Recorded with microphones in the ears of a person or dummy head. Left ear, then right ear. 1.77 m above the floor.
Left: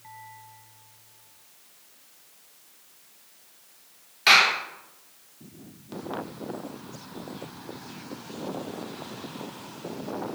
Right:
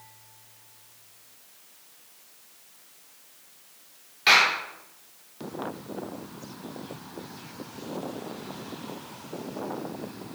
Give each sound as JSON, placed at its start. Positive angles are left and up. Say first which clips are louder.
{"t": 4.3, "sound": "a clap", "louder": "left 1 dB", "side_deg": 5, "distance_m": 3.5}